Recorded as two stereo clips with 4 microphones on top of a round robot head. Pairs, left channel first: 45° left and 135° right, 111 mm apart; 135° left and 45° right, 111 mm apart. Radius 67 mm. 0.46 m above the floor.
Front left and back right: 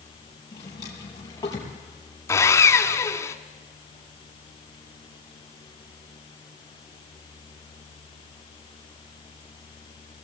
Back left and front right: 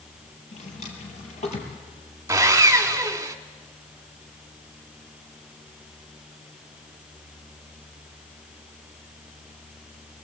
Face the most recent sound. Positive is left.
turn(degrees=0)